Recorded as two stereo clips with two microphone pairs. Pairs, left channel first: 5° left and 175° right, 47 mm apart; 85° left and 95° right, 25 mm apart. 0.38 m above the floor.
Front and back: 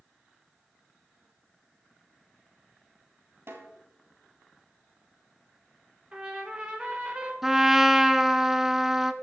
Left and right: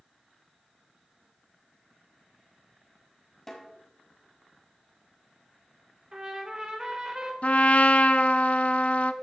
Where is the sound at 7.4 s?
105° left, 0.5 m.